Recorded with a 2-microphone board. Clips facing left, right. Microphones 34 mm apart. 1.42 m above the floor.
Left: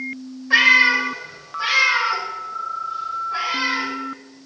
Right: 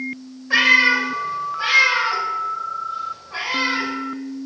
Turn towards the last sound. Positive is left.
turn(degrees=-30)  # may be behind; listen again after turning